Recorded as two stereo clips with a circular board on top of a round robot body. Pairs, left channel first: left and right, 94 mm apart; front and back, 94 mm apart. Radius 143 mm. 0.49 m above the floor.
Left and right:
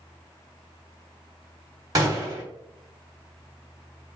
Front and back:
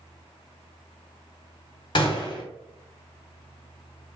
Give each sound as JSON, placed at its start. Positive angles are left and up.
{"t": 1.9, "sound": "a gunshot", "azimuth_deg": -40, "distance_m": 0.8}